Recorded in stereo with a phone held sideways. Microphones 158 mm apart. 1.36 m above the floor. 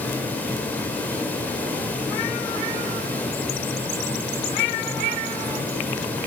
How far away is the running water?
About 5.5 m.